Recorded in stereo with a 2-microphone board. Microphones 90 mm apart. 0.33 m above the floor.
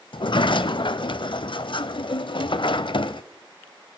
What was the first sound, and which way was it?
A sliding door, 65° left (ahead or behind).